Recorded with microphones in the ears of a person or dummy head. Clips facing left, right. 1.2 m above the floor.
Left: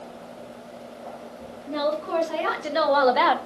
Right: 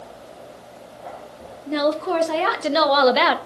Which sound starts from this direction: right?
A woman speaking, at 1.7 s.